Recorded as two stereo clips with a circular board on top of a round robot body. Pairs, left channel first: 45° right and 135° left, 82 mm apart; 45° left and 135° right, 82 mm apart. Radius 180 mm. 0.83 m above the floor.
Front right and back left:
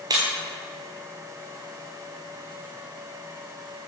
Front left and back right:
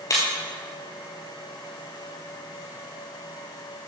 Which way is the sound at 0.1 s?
95° left.